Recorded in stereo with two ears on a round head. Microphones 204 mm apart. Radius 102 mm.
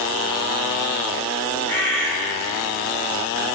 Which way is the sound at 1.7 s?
10° left (ahead or behind).